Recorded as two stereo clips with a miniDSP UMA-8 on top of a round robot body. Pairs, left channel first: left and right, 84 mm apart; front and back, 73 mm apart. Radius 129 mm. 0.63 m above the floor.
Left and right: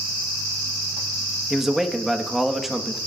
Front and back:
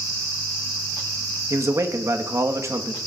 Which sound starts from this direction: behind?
A man speaking, at 1.5 s.